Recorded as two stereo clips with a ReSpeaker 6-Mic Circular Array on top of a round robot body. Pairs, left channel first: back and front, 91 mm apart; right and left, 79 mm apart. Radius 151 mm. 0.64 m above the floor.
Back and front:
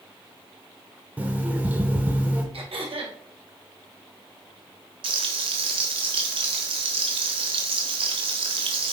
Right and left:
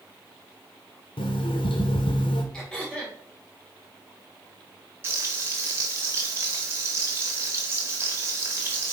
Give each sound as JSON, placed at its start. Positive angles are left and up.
{"t": 1.2, "sound": "an alarm clock", "azimuth_deg": -75, "distance_m": 0.8}
{"t": 2.5, "sound": "throat clearing", "azimuth_deg": -10, "distance_m": 1.9}
{"t": 5.0, "sound": "frying", "azimuth_deg": 25, "distance_m": 0.5}